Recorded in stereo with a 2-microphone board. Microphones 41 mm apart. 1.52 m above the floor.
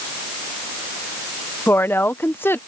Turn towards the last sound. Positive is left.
turn(degrees=75)  # may be behind; listen again after turning